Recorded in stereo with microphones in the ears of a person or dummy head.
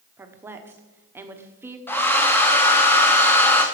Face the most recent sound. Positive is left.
turn(degrees=10)  # may be behind; listen again after turning